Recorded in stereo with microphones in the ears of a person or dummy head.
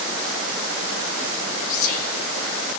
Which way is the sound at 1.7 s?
50° left (ahead or behind).